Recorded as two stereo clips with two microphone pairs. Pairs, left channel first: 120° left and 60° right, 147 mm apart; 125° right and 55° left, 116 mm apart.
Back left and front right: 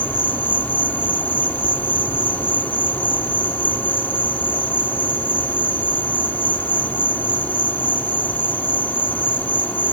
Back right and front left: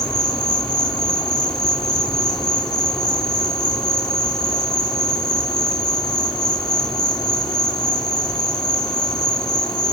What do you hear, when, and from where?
0.0 s an insect: 165° right